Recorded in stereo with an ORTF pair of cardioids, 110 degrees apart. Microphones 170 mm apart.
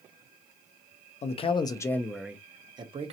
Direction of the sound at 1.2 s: 40° left.